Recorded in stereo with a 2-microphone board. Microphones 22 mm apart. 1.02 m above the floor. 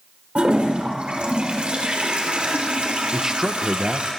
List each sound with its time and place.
0.3 s a toilet flushing: 65° right (ahead or behind), 4 m
3.1 s a man speaking: 30° right (ahead or behind), 0.6 m